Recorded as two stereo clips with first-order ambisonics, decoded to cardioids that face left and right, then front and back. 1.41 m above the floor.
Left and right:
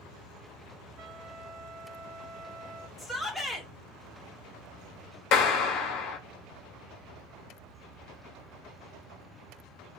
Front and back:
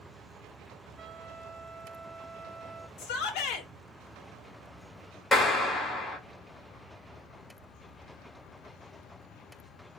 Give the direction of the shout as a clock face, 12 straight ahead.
12 o'clock.